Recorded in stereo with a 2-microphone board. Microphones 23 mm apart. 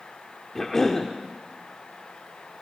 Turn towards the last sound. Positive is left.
turn(degrees=20)  # may be behind; listen again after turning